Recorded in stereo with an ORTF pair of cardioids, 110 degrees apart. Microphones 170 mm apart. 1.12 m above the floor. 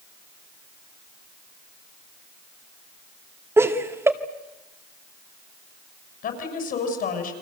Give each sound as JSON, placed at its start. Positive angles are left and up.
{"t": 3.6, "sound": "laughter", "azimuth_deg": -15, "distance_m": 2.0}
{"t": 6.2, "sound": "a woman speaking", "azimuth_deg": 60, "distance_m": 6.5}